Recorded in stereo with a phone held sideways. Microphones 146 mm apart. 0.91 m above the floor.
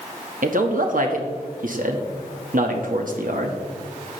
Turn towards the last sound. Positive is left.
turn(degrees=-70)  # may be behind; listen again after turning